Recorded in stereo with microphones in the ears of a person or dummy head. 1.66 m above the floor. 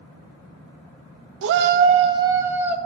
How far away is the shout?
About 0.6 m.